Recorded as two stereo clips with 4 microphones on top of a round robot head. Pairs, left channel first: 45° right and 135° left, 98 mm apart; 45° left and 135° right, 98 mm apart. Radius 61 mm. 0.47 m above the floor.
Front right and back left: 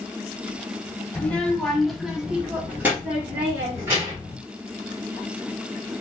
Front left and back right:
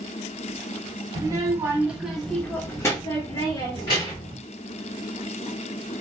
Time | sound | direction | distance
1.1 | a child speaking | 115° right | 1.0 m